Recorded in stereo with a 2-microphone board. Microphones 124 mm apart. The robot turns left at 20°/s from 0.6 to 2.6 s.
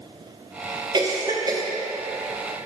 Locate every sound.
0.9 s a cough: 35° right (ahead or behind), 0.9 m; by 1.6 s 30° right (ahead or behind), 0.9 m